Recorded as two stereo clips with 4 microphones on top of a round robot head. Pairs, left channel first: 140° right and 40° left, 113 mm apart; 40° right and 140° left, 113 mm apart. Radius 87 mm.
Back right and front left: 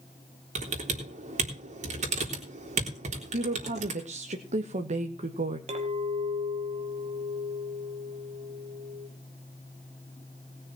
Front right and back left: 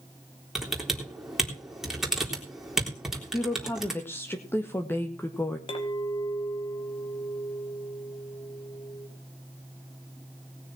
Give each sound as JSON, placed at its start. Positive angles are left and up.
{"t": 0.6, "sound": "typing on a keyboard", "azimuth_deg": 55, "distance_m": 3.5}
{"t": 3.3, "sound": "a woman speaking", "azimuth_deg": 30, "distance_m": 1.6}
{"t": 5.7, "sound": "a clink", "azimuth_deg": 5, "distance_m": 3.5}